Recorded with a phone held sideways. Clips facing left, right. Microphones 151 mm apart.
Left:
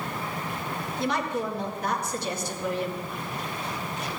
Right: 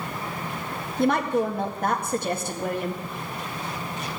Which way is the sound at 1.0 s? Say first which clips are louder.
Right 7 dB; 55° right (ahead or behind).